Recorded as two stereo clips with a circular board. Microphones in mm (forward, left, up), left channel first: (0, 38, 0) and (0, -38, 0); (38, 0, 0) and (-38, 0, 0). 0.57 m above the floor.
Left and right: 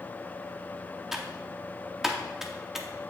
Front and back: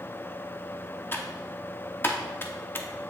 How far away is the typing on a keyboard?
About 0.8 m.